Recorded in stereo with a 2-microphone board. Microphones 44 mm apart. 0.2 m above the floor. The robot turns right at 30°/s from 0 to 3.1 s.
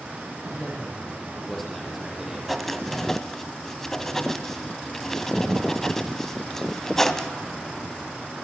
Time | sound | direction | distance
0.5 | a man speaking | 140° left | 7 m
2.5 | writing | centre (ahead or behind) | 1.6 m